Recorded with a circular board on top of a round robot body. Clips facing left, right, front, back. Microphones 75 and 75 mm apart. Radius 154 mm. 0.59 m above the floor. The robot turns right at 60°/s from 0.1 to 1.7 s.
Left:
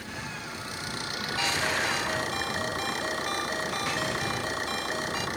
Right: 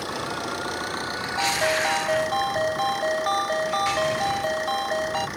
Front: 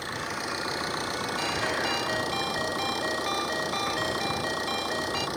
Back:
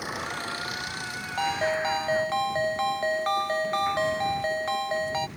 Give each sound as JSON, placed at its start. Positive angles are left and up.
{"t": 0.0, "sound": "an engine running", "azimuth_deg": -100}
{"t": 1.4, "sound": "a ringtone", "azimuth_deg": -145}